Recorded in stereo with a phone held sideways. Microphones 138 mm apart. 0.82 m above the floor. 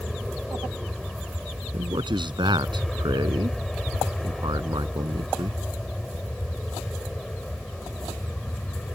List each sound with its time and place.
0.0 s an aircraft: centre (ahead or behind); by 8.9 s 5° left (ahead or behind)
1.7 s a man speaking: 35° right (ahead or behind)